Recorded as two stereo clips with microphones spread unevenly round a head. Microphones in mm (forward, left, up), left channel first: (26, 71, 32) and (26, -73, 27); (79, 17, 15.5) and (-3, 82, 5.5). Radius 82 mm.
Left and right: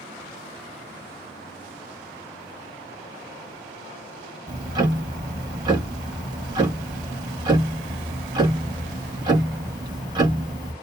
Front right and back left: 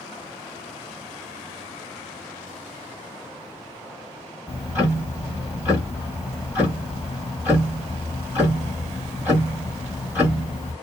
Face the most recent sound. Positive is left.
turn(degrees=-150)